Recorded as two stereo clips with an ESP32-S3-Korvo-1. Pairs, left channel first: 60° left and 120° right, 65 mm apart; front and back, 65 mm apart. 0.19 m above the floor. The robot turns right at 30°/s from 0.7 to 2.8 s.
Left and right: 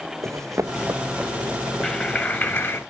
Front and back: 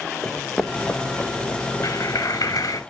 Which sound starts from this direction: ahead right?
A clap, at 1.8 s.